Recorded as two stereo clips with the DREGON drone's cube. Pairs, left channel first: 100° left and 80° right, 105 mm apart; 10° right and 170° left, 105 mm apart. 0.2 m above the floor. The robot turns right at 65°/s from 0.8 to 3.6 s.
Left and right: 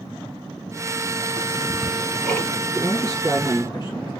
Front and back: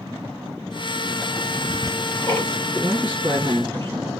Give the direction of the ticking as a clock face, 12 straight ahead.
1 o'clock.